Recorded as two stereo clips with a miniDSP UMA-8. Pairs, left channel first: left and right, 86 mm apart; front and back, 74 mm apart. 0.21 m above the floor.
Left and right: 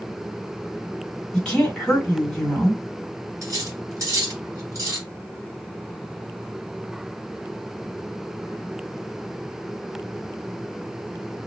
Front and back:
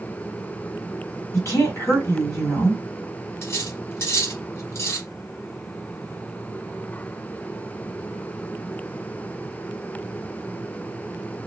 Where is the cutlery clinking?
45° right, 1.6 m.